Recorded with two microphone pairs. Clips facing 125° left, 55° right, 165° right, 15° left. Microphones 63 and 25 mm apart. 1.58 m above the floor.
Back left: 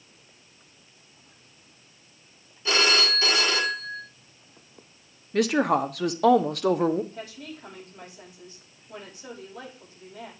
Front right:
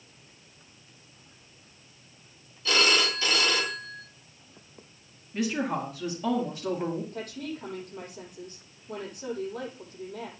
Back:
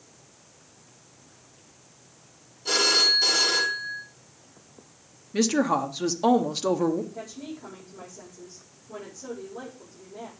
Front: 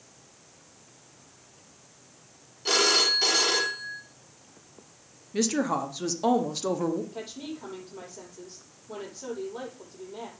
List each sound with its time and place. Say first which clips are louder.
2.6 s a phone ringing: back left 1 dB, back 2 dB; 60° left, 2.5 m
5.3 s a woman speaking: back left 7 dB, back 3 dB; 120° left, 1.0 m
7.1 s a woman speaking: front right 3 dB, even; 20° right, 6.5 m